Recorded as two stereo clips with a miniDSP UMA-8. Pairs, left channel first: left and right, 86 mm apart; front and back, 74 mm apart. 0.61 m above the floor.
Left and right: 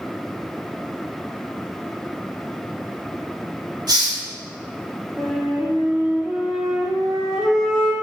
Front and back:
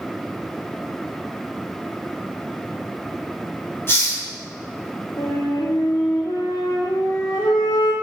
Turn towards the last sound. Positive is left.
turn(degrees=-5)